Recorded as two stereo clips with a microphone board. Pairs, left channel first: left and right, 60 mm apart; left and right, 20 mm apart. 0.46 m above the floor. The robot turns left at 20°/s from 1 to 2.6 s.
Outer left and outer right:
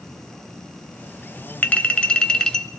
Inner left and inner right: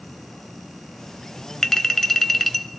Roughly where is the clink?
Left.